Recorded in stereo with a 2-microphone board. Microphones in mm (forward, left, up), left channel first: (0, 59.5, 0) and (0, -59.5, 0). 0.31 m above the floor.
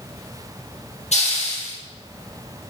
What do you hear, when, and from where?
1.1 s a hiss: 70° left (ahead or behind), 3.5 m